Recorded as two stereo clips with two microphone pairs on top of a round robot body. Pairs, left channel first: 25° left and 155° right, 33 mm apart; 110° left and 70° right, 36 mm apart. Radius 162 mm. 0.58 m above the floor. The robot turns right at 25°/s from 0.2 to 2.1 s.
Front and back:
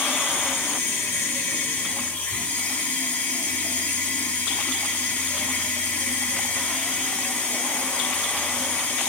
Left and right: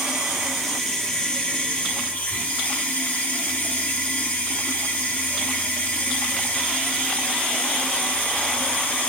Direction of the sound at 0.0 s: 10° left.